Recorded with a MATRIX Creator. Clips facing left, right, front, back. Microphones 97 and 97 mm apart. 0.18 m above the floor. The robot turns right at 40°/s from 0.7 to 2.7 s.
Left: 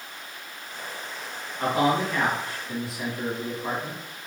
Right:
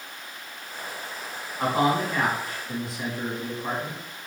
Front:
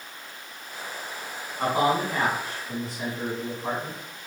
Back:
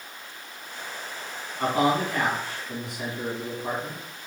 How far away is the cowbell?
I don't hear a cowbell.